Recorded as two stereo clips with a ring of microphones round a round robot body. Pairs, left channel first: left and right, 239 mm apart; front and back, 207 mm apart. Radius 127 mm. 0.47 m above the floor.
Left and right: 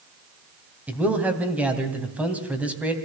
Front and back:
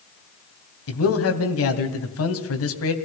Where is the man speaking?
5° right, 2.5 m.